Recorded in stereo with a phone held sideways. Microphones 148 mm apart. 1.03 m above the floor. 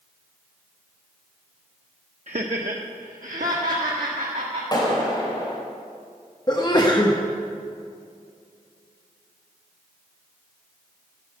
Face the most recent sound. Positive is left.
turn(degrees=30)  # may be behind; listen again after turning